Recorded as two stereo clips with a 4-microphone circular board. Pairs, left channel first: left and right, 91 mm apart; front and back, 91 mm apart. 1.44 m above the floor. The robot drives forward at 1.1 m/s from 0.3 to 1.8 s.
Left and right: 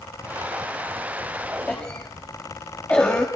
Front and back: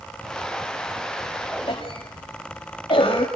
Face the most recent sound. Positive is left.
turn(degrees=15)